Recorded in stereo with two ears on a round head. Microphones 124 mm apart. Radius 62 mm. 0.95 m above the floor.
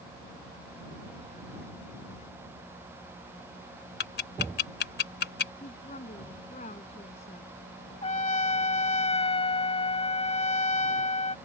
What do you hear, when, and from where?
4.0 s ticking: 85° left
5.6 s a woman speaking: 50° left (ahead or behind)
8.0 s a trumpet: 45° left (ahead or behind)